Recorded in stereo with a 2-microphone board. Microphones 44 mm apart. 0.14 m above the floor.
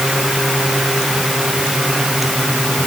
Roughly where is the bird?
I don't hear a bird.